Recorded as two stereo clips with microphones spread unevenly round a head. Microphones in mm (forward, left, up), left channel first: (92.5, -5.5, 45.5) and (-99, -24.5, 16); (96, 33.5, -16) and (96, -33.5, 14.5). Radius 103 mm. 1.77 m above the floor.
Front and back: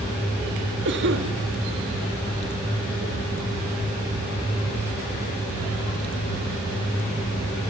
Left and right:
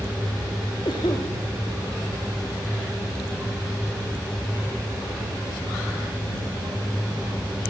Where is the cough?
155° left, 3.5 m.